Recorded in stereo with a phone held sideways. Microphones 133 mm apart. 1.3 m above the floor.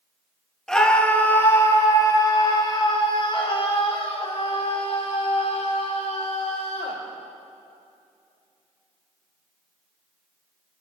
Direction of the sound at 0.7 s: 5° left (ahead or behind).